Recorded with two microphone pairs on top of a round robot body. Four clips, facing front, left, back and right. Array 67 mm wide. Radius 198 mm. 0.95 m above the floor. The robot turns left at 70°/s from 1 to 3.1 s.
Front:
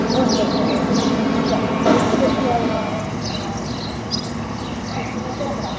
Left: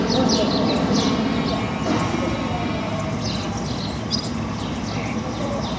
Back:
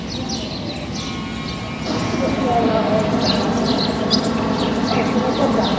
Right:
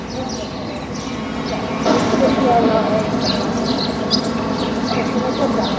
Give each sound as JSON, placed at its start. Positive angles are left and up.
{"t": 0.0, "sound": "an insect", "azimuth_deg": 15, "distance_m": 4.0}